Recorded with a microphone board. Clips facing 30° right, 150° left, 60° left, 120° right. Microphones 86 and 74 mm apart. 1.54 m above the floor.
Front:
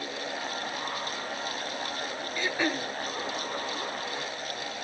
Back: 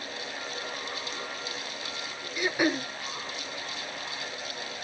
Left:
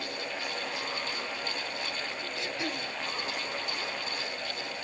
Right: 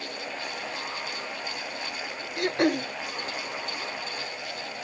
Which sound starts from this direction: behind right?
Throat clearing, at 2.4 s.